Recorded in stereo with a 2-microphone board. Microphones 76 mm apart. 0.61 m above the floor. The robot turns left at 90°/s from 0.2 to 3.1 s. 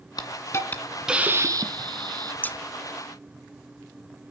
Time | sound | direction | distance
0.2 | a hiss | 70° left | 1.8 m
2.4 | scissors | 25° left (ahead or behind) | 0.5 m